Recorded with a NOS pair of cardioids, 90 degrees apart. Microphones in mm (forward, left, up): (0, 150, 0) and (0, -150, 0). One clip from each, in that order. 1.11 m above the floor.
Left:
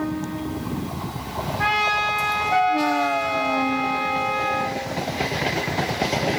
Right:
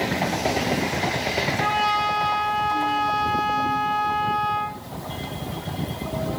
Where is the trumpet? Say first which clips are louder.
Left 3 dB; 20° left, 0.9 m.